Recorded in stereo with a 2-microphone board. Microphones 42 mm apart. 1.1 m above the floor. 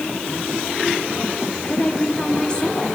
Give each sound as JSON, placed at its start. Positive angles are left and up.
{"t": 1.6, "sound": "a woman speaking", "side_deg": 20, "distance_m": 3.0}